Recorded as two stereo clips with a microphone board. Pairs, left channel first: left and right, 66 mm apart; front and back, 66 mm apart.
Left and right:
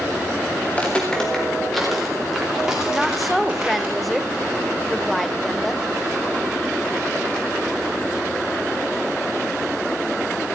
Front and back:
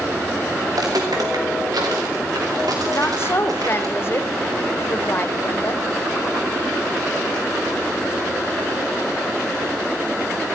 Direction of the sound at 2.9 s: Straight ahead.